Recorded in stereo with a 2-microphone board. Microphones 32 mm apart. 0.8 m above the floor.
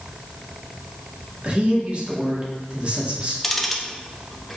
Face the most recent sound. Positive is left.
turn(degrees=5)  # may be behind; listen again after turning